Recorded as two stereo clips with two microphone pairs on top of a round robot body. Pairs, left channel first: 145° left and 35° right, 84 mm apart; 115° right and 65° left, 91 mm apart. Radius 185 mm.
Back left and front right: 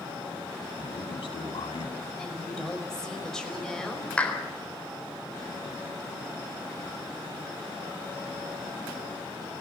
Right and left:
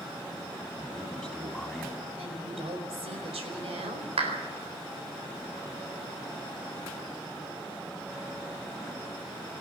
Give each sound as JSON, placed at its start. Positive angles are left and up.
{"t": 0.8, "sound": "a man speaking", "azimuth_deg": 155, "distance_m": 6.5}
{"t": 2.2, "sound": "a woman speaking", "azimuth_deg": 60, "distance_m": 5.0}
{"t": 4.2, "sound": "a clap", "azimuth_deg": 70, "distance_m": 4.0}